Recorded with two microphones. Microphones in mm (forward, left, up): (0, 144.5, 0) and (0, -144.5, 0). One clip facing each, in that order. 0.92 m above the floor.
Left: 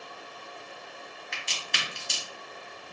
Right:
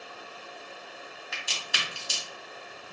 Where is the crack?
5° right (ahead or behind), 1.3 m.